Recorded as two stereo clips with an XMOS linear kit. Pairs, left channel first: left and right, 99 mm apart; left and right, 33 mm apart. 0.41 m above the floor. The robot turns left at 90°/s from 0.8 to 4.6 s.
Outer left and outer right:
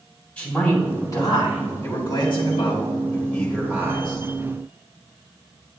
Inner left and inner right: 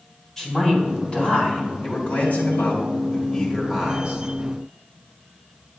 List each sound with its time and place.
0.4 s a man speaking: 165° left, 3 m; by 1.6 s 90° left, 3 m
1.8 s a man speaking: 145° left, 2 m; by 4.2 s 75° right, 2 m